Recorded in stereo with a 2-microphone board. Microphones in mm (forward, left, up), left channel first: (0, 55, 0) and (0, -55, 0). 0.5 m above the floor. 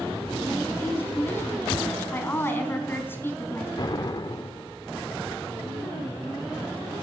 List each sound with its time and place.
0.8 s a woman speaking: 20° left (ahead or behind), 4.5 m
3.8 s an explosion: 40° left (ahead or behind), 1.6 m